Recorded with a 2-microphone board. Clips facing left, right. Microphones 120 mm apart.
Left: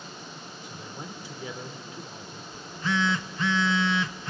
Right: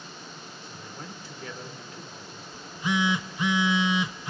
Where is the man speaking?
15° left (ahead or behind), 2.0 m.